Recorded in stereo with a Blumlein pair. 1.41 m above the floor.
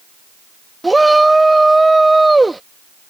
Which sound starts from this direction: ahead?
A shout, at 0.8 s.